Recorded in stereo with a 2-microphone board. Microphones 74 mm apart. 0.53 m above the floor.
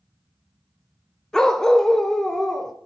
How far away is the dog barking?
About 0.6 m.